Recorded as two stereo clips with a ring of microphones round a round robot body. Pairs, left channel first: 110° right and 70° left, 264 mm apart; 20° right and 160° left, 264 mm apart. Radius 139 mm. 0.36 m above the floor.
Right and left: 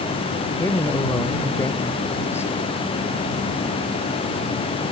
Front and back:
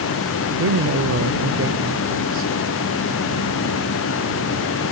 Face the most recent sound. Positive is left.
turn(degrees=170)